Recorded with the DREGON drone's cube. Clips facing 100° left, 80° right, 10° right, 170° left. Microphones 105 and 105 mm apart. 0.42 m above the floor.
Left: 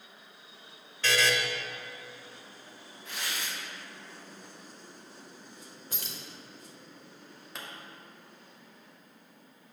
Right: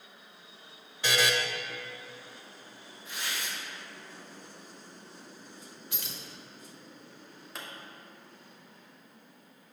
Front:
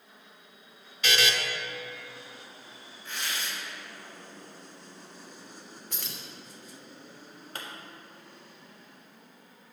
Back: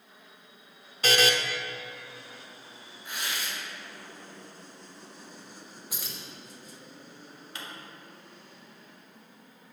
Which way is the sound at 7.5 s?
10° left.